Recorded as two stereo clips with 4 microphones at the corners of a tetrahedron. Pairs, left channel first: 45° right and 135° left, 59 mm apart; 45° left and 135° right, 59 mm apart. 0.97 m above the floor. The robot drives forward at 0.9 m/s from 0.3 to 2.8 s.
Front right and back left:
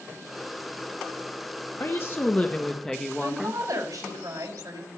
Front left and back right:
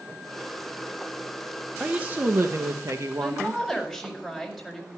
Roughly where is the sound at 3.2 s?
Behind left.